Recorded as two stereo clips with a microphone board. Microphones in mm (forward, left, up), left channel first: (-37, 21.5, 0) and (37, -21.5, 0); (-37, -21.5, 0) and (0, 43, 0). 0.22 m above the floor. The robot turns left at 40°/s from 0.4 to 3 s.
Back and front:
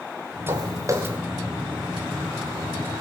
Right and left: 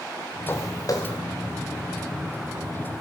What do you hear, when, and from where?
0.5 s footsteps: 65° right, 2 m; by 1.2 s 95° right, 2 m